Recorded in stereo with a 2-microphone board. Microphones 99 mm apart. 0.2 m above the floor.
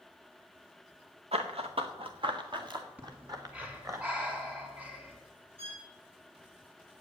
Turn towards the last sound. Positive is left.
turn(degrees=-70)  # may be behind; listen again after turning